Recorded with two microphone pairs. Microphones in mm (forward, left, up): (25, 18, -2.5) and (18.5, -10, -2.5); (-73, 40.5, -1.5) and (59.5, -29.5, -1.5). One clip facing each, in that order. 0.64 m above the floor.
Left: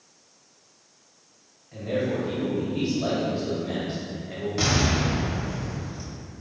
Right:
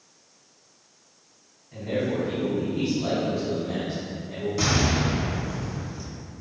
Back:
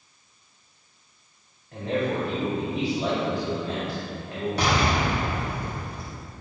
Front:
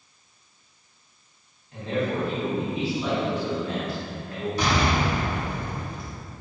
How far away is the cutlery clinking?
I don't hear cutlery clinking.